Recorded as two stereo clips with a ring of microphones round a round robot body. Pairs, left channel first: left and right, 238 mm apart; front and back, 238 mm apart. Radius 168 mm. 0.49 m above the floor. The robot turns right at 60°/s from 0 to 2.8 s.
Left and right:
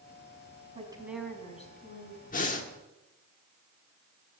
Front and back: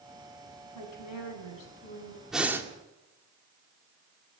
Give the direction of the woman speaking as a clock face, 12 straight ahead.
1 o'clock.